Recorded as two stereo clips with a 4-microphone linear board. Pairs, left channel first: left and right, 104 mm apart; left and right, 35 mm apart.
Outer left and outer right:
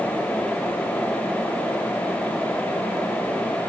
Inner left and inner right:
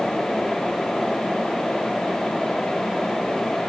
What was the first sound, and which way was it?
Only background noise.